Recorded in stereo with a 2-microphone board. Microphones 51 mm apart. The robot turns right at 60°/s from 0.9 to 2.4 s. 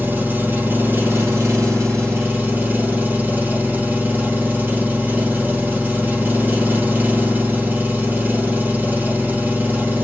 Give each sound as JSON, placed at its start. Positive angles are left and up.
{"t": 0.0, "sound": "an engine running", "azimuth_deg": -135, "distance_m": 3.0}